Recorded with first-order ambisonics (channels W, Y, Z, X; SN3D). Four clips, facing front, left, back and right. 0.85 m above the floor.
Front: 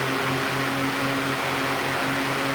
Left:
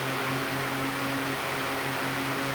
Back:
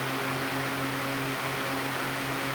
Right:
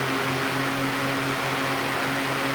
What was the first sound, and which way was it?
Only background noise.